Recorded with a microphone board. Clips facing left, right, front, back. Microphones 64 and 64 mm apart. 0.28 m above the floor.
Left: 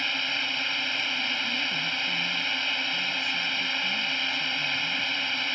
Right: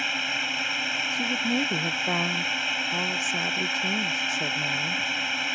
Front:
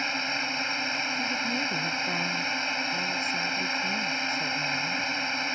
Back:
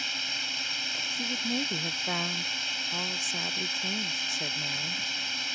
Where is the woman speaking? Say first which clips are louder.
Right 4 dB, front 3 dB; 100° right.